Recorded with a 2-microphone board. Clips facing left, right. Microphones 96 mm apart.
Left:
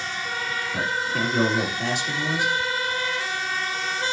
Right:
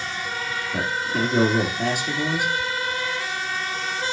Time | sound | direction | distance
0.7 | a man speaking | 55° right (ahead or behind) | 2.5 m